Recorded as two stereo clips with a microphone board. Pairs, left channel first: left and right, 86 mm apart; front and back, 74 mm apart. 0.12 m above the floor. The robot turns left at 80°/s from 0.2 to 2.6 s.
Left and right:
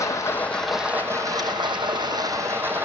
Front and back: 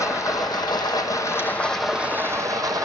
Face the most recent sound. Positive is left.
turn(degrees=-150)